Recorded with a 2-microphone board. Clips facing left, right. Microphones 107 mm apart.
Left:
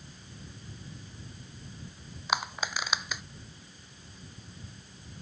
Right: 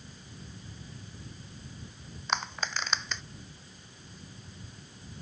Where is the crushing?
10° left (ahead or behind).